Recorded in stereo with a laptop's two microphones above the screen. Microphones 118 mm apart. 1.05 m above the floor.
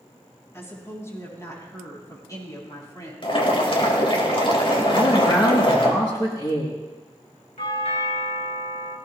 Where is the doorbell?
70° left (ahead or behind), 2.5 m.